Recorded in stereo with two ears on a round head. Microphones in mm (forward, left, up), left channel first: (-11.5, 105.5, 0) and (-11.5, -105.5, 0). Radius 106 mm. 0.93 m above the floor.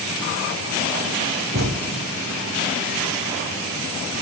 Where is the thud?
45° right (ahead or behind), 1.5 m.